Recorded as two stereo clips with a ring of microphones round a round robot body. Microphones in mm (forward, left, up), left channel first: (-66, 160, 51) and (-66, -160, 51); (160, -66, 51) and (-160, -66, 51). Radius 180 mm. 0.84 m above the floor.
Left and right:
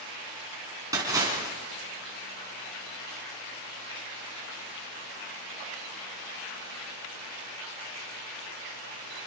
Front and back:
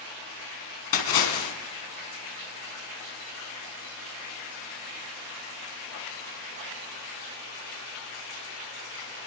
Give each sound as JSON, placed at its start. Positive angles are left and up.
{"t": 0.9, "sound": "a splash", "azimuth_deg": -10, "distance_m": 3.5}